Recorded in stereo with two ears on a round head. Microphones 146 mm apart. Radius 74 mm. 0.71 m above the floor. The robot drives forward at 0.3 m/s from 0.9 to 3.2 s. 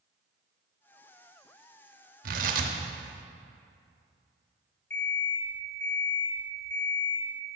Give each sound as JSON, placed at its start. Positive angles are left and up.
{"t": 2.2, "sound": "tearing paper", "side_deg": -60, "distance_m": 0.9}
{"t": 4.9, "sound": "an alarm clock", "side_deg": 80, "distance_m": 1.8}